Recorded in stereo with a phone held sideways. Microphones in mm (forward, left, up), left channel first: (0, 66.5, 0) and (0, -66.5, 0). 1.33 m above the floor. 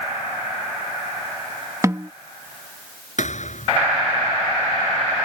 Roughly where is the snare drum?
Right.